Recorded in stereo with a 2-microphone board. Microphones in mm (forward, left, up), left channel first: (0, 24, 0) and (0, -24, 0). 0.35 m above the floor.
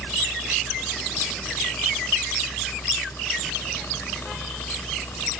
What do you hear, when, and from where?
0.0 s a helicopter: 55° left (ahead or behind); by 5.4 s 60° left (ahead or behind)